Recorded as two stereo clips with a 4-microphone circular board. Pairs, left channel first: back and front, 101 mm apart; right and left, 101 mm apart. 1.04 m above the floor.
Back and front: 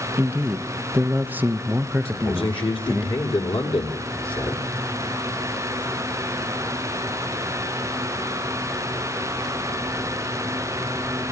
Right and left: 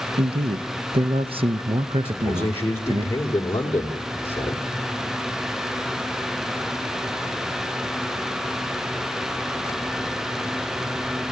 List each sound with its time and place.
0.2 s a man speaking: 70° left, 0.8 m
2.0 s a man speaking: 155° right, 2.5 m